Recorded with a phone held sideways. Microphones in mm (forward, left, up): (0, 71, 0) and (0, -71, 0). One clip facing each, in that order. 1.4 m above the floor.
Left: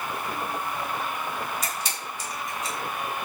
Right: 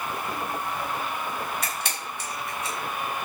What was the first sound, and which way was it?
A camera shutter, 65° right (ahead or behind).